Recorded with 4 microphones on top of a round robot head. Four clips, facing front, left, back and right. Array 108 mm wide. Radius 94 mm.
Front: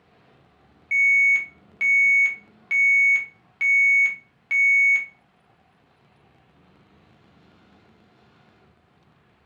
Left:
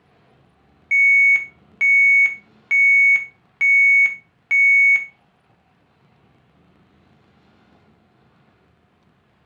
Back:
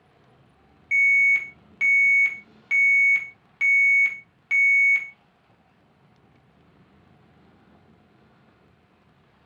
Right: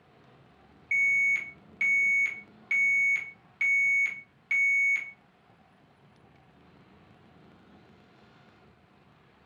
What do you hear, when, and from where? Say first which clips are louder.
0.9 s an alarm: left 11 dB, front 1 dB; 85° left, 0.6 m